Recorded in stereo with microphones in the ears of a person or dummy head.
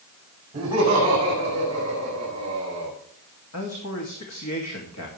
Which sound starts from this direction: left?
A man speaking, at 3.5 s.